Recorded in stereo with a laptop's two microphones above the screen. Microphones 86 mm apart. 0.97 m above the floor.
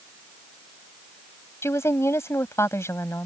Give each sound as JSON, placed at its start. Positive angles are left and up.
{"t": 1.6, "sound": "a woman speaking", "side_deg": 30}